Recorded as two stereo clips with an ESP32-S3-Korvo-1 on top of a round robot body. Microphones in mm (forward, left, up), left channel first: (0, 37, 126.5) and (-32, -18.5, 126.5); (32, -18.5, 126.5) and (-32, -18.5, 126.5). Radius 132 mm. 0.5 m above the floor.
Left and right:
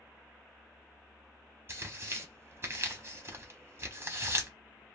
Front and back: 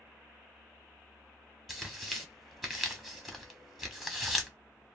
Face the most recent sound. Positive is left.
turn(degrees=-95)